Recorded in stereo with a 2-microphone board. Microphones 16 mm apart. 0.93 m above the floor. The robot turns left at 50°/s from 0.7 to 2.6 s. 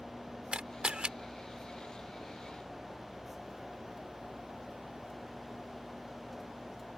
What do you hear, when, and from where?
0.5 s a camera shutter: 80° right; by 1.1 s 75° right (ahead or behind)